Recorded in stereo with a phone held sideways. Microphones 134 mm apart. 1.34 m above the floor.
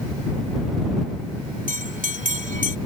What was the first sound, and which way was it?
A bell, 85° right.